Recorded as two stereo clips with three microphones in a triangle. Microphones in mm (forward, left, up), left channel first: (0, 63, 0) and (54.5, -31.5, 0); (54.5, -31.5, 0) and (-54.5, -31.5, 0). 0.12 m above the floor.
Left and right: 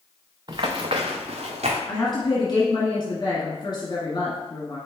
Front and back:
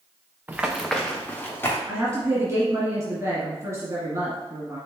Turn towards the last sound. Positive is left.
turn(degrees=135)